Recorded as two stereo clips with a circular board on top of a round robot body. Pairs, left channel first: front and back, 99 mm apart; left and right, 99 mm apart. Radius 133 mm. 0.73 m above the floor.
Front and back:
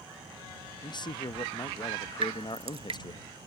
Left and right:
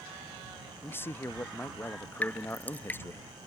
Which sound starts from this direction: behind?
Dripping, at 2.2 s.